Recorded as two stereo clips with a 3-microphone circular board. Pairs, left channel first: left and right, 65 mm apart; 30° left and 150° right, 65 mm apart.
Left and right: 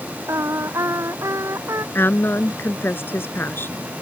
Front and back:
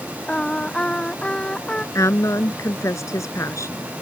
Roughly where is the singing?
Ahead right.